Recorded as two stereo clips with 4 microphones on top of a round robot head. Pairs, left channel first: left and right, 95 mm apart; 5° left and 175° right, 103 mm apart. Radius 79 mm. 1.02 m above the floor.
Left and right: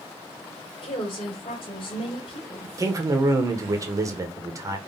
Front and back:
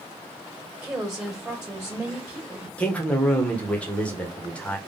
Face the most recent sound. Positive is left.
turn(degrees=-65)